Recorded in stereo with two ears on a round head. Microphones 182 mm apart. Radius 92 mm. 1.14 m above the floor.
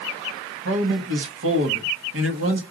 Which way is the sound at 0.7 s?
75° right (ahead or behind).